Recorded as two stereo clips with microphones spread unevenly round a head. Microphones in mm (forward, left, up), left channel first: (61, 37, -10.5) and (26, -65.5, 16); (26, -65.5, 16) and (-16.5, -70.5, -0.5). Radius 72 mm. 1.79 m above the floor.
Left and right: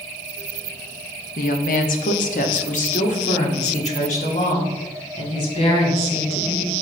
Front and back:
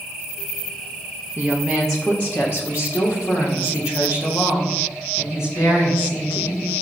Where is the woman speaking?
100° left, 0.6 m; by 6.7 s 50° left, 3 m.